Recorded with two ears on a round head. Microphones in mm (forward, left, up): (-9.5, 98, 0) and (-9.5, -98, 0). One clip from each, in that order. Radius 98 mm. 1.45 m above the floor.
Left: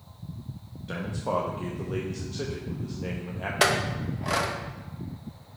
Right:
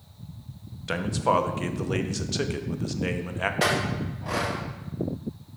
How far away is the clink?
About 0.8 m.